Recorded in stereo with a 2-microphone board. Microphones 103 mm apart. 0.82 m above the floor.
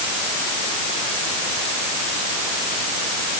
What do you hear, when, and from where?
Only background noise.